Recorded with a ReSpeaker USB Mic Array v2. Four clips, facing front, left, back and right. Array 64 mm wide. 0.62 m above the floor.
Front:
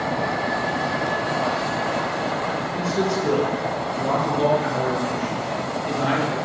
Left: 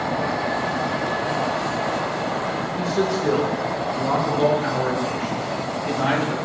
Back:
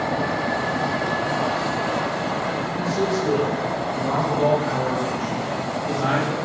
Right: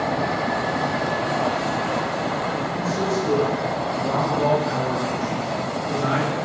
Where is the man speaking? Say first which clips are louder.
Left 3 dB, even; 65° left, 6 m; by 6.3 s 80° left, 8 m.